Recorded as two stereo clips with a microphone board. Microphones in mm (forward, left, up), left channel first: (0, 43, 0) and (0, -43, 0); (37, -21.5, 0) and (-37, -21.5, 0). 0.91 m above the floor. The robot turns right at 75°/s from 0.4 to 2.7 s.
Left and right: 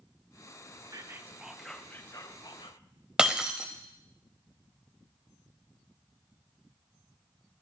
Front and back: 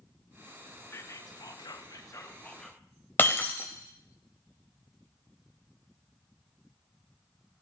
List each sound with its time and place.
0.9 s whispering: 55° right, 0.6 m; by 2.8 s 80° left, 0.6 m
3.2 s breaking glass: 20° right, 0.7 m